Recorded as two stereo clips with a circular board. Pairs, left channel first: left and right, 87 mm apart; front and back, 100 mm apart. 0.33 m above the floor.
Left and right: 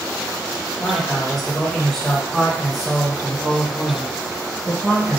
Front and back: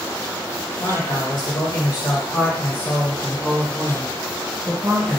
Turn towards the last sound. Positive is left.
turn(degrees=180)